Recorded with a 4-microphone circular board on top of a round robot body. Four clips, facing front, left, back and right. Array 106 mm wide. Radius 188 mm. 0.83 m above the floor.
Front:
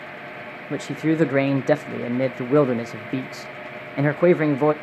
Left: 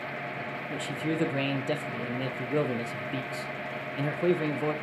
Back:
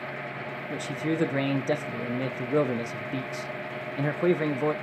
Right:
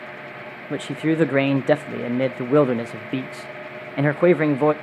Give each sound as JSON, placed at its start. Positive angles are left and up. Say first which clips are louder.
{"t": 0.7, "sound": "a man speaking", "louder": "right 10 dB, front 7 dB", "azimuth_deg": -55, "distance_m": 0.8}